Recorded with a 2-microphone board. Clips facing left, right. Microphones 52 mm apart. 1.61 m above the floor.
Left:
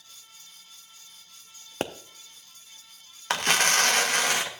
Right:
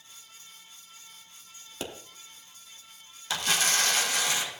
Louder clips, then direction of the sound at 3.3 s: Left 5 dB; 55° left (ahead or behind).